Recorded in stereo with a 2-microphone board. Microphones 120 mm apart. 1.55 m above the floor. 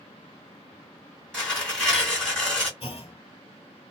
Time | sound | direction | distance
1.3 | tearing paper | 5° left (ahead or behind) | 2 m
2.8 | a clunk | 50° left (ahead or behind) | 1.5 m